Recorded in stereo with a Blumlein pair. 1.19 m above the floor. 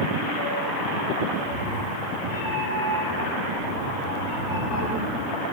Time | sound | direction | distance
1.3 | a cat meowing | 40° left | 1.6 m